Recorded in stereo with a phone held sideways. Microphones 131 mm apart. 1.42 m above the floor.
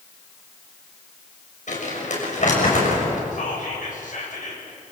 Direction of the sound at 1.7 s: 65° left (ahead or behind).